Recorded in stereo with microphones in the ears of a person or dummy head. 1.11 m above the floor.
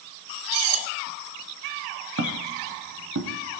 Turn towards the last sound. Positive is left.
turn(degrees=-70)  # may be behind; listen again after turning